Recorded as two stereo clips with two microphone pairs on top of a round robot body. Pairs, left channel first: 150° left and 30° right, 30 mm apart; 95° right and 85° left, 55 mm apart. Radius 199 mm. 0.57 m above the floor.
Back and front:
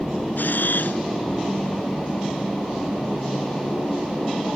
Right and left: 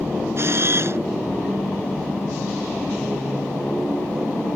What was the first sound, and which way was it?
A camera shutter, 130° left.